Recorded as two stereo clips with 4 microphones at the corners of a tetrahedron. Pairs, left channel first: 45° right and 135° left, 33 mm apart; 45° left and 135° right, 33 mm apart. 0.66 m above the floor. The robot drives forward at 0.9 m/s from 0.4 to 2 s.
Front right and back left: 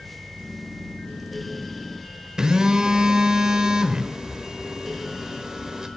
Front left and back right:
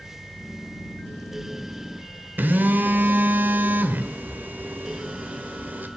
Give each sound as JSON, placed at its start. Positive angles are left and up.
{"t": 2.4, "sound": "a phone buzzing", "azimuth_deg": -155, "distance_m": 1.2}